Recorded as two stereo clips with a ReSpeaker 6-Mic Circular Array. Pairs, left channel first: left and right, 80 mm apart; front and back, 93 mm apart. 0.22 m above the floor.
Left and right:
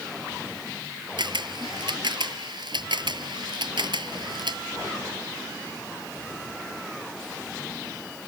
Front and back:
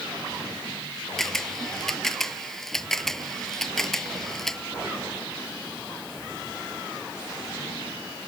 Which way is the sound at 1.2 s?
85° right.